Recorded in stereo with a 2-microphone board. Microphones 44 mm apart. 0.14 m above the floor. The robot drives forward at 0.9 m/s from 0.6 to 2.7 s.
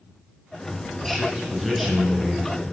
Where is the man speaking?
Centre (ahead or behind), 1.0 m.